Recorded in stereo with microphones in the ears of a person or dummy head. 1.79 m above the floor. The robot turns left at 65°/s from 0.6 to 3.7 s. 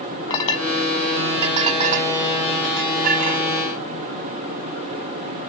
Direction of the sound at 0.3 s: 20° left (ahead or behind).